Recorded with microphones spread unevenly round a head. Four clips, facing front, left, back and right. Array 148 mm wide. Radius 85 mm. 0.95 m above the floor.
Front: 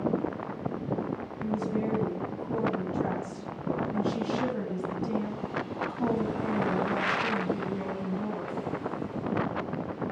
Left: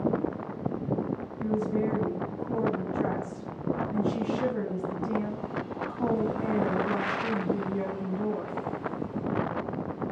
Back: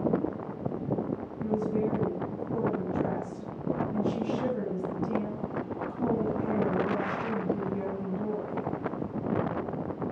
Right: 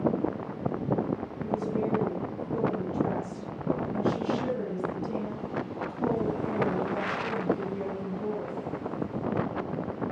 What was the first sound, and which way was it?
A woman speaking, 60° left.